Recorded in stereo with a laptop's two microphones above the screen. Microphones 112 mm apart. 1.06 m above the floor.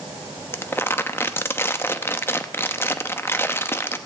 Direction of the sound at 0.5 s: 25° left (ahead or behind).